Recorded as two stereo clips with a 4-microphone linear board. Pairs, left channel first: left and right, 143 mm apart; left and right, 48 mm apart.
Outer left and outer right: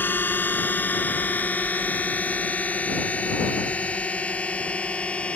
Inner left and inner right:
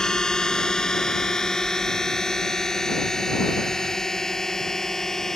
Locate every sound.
0.0 s a drone: 15° left (ahead or behind); by 5.4 s 10° left (ahead or behind)